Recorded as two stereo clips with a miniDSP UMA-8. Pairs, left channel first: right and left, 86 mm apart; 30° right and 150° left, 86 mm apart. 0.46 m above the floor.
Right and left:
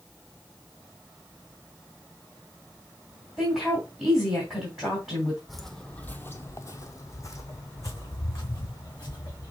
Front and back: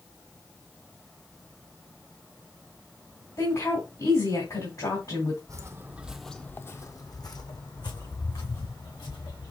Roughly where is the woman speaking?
Ahead.